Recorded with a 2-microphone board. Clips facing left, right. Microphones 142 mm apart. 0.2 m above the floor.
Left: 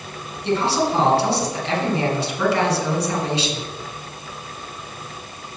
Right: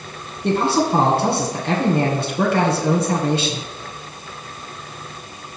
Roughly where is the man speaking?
Right.